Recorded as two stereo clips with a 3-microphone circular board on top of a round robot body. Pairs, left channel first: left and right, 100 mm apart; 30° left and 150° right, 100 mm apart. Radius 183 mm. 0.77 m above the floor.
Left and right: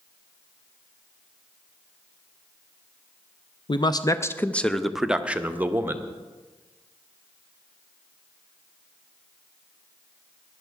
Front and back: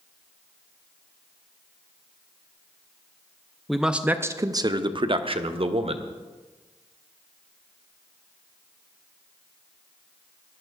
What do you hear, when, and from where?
3.7 s a man speaking: 120° left, 0.7 m; by 6.0 s 155° right, 1.3 m